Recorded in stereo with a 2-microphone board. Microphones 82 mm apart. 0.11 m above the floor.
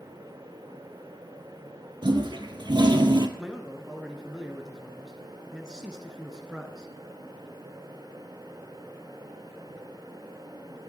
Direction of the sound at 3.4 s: 10° right (ahead or behind).